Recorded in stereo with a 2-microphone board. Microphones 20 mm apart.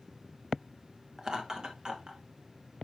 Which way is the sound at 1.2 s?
30° right (ahead or behind).